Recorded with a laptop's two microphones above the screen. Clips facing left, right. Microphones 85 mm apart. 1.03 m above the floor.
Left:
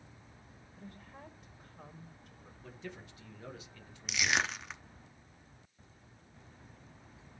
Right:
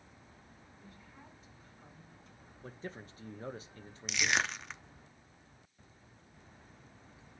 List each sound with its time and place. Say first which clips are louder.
0.8 s a woman speaking: left 7 dB; 60° left (ahead or behind), 1.8 m
2.6 s a man speaking: right 2 dB; 35° right (ahead or behind), 0.8 m
4.1 s crushing: even; centre (ahead or behind), 0.6 m